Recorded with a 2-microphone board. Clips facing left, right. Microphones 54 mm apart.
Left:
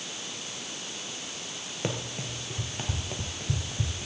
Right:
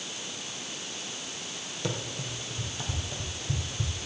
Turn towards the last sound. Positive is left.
turn(degrees=45)  # may be behind; listen again after turning